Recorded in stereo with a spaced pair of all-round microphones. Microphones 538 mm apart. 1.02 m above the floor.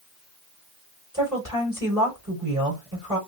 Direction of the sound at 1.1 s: 30° right (ahead or behind).